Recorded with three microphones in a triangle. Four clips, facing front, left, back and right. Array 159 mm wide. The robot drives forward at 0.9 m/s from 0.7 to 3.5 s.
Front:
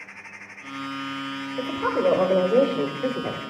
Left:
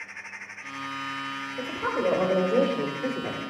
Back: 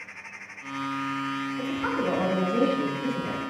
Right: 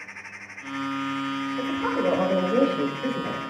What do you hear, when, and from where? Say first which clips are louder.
1.6 s a woman speaking: right 1 dB, front 6 dB; 5° left, 3.5 m; by 3.4 s 15° left, 1.8 m